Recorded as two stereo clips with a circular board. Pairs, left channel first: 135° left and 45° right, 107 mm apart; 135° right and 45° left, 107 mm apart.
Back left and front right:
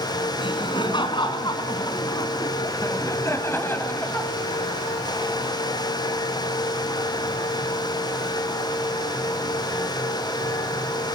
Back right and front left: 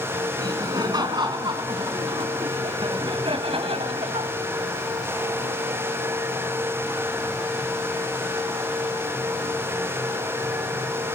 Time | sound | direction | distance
0.4 | laughter | 95° left | 4.5 m